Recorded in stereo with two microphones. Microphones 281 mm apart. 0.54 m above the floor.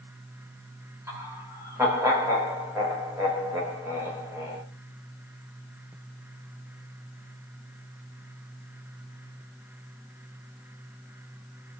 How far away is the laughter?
About 0.9 m.